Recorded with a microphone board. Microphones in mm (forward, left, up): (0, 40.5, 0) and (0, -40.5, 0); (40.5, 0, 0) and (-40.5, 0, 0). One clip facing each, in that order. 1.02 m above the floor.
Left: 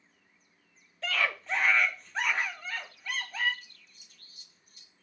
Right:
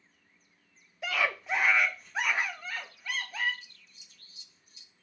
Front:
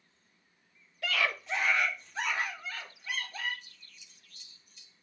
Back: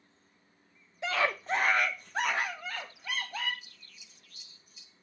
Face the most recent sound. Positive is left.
turn(degrees=95)